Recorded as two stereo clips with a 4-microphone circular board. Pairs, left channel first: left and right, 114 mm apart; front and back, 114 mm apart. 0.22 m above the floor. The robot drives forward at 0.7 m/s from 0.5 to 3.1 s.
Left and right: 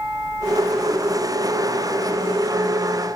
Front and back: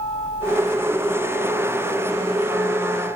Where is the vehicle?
10° right.